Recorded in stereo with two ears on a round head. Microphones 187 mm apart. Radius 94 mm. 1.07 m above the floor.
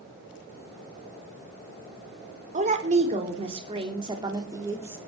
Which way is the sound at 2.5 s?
35° right (ahead or behind).